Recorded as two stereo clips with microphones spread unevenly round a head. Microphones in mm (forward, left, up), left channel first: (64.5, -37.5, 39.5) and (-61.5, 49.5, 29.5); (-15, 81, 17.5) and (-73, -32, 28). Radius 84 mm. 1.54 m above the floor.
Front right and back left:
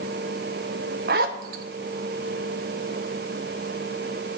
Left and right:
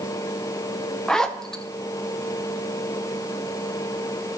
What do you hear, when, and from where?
1.1 s a zipper: 150° left, 0.7 m